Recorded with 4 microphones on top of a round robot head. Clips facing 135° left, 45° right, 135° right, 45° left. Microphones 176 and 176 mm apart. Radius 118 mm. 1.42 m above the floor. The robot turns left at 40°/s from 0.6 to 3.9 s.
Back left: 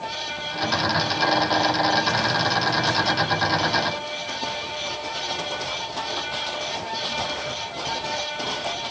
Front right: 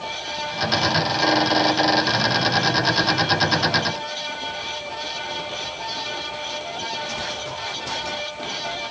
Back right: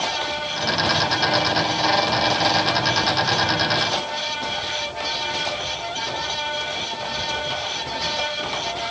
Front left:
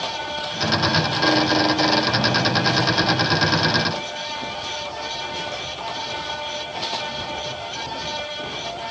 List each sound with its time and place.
Only background noise.